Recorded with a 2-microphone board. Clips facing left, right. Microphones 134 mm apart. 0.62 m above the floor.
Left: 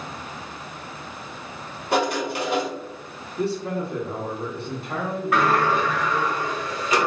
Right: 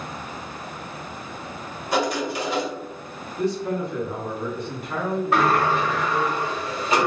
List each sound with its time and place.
1.9 s writing: 55° left (ahead or behind), 1.0 m
3.4 s a man speaking: 30° left (ahead or behind), 1.0 m
5.3 s a sliding door: 25° right (ahead or behind), 1.4 m